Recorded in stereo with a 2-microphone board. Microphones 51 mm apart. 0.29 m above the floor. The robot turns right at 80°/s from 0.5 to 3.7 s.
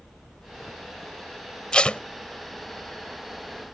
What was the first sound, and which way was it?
Tape being pulled, 15° left (ahead or behind).